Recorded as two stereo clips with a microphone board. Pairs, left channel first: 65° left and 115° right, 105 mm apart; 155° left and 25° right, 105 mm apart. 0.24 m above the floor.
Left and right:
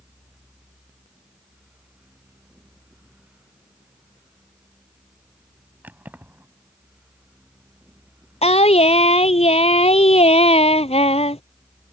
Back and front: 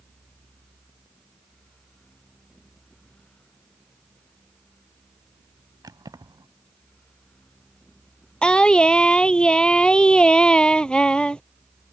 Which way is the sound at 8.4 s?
75° left.